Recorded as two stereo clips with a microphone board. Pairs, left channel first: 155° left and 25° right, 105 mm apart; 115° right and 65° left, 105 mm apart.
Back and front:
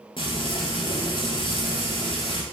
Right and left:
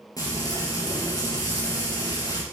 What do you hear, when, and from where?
0.2 s frying: 165° right, 4 m